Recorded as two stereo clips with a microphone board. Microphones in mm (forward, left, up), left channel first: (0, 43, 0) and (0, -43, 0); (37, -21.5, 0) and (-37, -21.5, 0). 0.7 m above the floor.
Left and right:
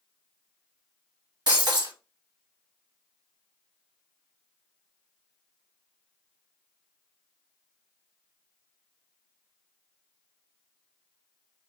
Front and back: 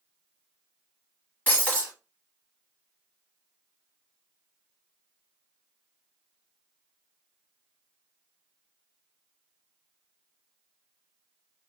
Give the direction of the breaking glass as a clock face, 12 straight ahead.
2 o'clock.